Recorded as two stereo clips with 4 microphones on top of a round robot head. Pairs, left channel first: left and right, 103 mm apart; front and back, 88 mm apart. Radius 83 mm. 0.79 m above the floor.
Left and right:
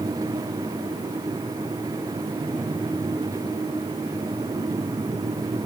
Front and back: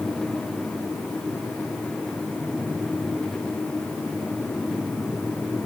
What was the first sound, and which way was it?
Only background noise.